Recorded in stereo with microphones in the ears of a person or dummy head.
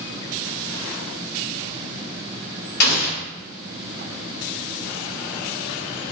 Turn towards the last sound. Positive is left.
turn(degrees=60)  # may be behind; listen again after turning